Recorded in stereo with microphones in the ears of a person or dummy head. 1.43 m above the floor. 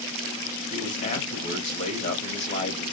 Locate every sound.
0.7 s a man speaking: 35° left (ahead or behind), 1.4 m